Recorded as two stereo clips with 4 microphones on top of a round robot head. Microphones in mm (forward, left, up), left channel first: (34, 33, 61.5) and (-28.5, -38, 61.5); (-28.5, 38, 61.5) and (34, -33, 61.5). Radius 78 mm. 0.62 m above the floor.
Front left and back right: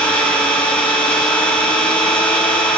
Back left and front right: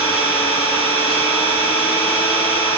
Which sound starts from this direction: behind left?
An engine running, at 0.0 s.